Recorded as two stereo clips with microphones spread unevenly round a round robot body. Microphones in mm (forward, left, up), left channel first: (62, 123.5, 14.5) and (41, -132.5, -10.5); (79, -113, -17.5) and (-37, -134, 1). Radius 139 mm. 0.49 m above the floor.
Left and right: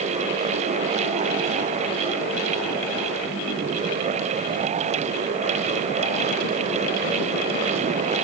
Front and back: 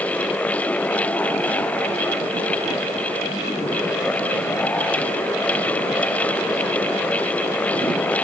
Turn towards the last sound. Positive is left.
No sound to turn to.